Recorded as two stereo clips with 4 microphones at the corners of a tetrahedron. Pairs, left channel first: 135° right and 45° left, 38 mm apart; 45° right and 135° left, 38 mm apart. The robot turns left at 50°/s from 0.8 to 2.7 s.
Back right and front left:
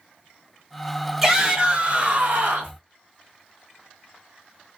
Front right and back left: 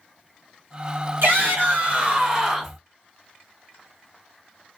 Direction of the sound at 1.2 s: 125° left.